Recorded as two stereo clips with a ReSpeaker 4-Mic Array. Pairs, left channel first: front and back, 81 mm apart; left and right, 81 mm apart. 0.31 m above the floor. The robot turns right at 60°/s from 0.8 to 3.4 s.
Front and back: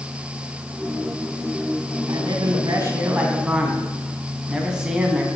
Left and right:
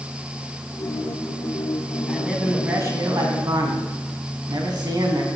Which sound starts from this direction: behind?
A man speaking, at 2.1 s.